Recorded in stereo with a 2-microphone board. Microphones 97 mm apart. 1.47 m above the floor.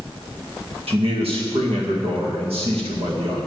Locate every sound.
0.9 s a man speaking: 85° right, 2.0 m